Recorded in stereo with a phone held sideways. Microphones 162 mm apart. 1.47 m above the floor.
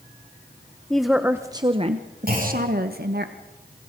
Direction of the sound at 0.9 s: 5° left (ahead or behind).